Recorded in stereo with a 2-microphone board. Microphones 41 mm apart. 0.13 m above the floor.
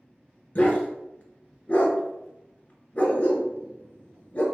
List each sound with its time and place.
0.6 s a dog barking: 35° left (ahead or behind), 0.8 m